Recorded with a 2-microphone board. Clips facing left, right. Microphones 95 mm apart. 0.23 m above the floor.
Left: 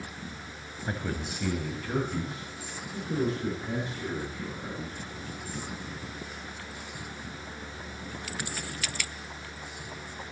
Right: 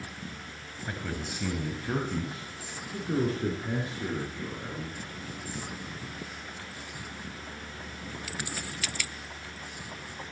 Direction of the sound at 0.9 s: 25° left (ahead or behind).